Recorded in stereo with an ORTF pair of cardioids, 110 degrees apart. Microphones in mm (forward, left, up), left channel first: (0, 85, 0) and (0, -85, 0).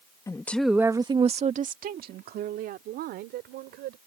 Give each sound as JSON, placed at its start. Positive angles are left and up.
{"t": 0.3, "sound": "a woman speaking", "azimuth_deg": 20}